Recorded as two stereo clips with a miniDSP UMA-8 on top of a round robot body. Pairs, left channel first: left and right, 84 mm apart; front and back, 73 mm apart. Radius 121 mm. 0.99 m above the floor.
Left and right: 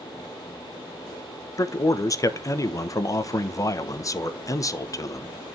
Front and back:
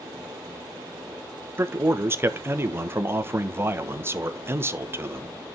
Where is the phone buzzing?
I don't hear a phone buzzing.